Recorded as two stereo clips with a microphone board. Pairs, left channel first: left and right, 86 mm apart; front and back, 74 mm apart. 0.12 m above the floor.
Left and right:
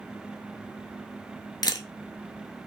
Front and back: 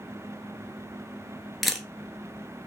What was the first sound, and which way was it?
A camera shutter, 90° left.